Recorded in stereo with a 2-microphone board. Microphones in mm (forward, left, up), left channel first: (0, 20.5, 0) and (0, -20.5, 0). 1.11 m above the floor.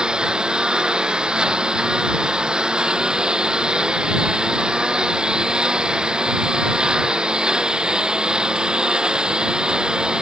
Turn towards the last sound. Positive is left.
turn(degrees=-20)  # may be behind; listen again after turning